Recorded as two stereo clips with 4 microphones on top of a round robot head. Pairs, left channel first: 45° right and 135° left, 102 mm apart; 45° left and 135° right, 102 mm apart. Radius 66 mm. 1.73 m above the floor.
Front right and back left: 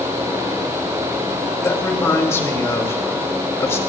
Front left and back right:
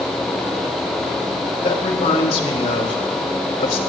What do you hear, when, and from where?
1.6 s a man speaking: 20° left, 3 m